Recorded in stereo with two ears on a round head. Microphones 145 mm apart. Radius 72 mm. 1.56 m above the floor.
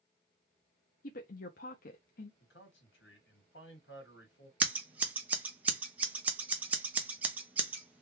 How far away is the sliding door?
No sliding door in this recording.